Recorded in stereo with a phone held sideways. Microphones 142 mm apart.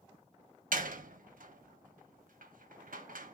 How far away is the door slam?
About 0.7 m.